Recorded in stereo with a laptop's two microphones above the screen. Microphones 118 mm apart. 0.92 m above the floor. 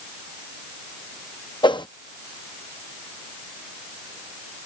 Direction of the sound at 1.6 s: 40° left (ahead or behind).